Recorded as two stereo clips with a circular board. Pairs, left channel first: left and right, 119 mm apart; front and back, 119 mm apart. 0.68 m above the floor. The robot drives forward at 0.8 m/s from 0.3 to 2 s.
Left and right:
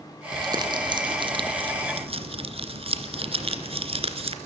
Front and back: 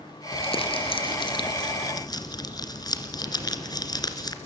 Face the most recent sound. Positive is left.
turn(degrees=-55)